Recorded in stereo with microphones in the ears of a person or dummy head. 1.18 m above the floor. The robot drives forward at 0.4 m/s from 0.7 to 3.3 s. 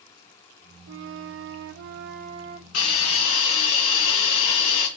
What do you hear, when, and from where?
0.9 s a flute: 65° right (ahead or behind), 0.6 m; by 2.6 s 40° right (ahead or behind), 0.8 m
2.7 s a hiss: 50° left (ahead or behind), 2.5 m; by 4.9 s 45° left (ahead or behind), 2.5 m